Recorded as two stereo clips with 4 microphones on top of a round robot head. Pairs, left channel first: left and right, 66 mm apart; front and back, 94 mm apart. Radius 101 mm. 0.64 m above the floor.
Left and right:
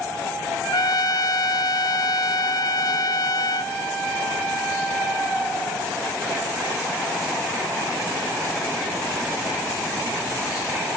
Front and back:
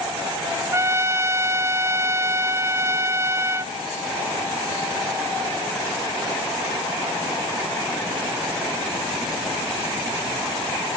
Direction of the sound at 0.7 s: 120° left.